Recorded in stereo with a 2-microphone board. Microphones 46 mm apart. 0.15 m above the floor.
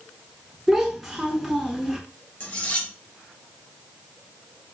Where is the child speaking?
5° right (ahead or behind), 1.0 m.